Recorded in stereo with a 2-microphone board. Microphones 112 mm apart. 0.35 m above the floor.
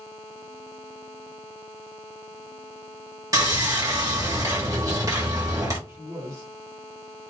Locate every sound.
3.3 s sawing: 30° right (ahead or behind), 1.4 m
5.9 s a man speaking: 30° right (ahead or behind), 2 m